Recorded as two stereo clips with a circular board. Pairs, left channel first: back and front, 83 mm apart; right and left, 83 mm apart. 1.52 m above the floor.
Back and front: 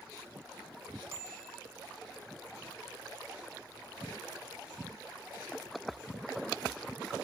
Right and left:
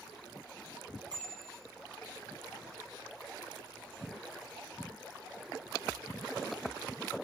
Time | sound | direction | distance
1.1 | a bicycle bell | 60° left | 6 m